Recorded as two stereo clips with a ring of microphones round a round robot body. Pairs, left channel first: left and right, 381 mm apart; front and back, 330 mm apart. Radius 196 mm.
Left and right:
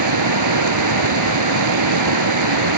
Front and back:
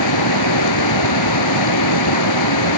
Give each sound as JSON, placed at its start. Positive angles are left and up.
{"t": 0.0, "sound": "running water", "azimuth_deg": -45}